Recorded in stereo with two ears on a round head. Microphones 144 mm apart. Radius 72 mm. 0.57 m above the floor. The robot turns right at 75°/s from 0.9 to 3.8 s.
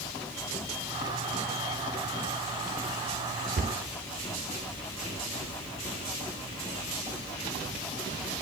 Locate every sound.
3.6 s a cupboard door: 55° right (ahead or behind), 0.8 m; by 3.8 s 40° right (ahead or behind), 0.8 m